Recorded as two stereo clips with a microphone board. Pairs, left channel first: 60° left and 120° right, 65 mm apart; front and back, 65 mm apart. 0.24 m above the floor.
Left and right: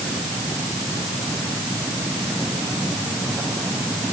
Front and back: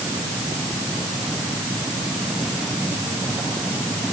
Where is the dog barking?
I don't hear a dog barking.